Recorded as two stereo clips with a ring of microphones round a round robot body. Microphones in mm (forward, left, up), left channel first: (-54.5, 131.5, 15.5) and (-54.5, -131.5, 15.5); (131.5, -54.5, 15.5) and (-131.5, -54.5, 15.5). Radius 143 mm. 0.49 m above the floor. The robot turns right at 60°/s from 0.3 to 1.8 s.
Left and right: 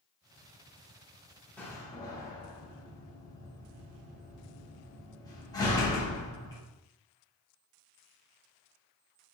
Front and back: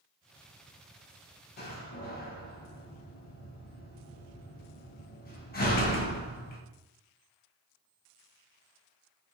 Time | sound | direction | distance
1.6 | a door slam | 10° left | 0.5 m